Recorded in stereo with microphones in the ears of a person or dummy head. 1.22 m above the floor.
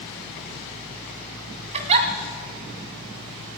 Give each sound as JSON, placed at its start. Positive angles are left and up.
{"t": 1.7, "sound": "a giggle", "side_deg": -30, "distance_m": 1.8}